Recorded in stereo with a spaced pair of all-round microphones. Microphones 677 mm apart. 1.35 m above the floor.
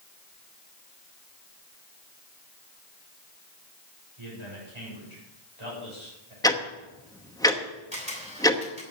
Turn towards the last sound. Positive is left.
turn(degrees=-10)  # may be behind; listen again after turning